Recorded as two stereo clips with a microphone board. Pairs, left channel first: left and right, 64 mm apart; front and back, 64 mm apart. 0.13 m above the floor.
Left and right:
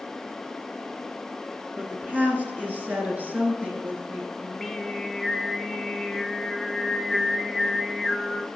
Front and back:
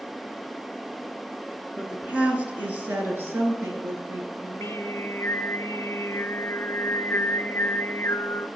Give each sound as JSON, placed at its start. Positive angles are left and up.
{"t": 1.8, "sound": "a woman speaking", "azimuth_deg": -125, "distance_m": 1.9}
{"t": 4.4, "sound": "singing", "azimuth_deg": 5, "distance_m": 0.5}